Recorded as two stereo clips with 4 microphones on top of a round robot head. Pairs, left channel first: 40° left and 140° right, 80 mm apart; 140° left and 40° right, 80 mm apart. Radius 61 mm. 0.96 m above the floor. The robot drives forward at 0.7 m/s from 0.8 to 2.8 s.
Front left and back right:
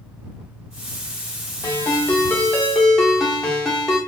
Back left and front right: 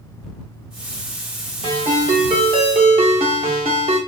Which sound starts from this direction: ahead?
A ringtone, at 1.6 s.